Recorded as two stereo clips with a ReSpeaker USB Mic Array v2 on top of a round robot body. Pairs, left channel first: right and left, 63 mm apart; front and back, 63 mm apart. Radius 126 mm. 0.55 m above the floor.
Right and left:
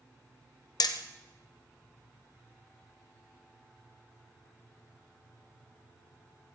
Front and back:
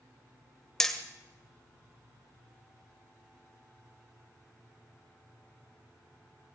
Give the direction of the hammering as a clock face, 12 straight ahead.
3 o'clock.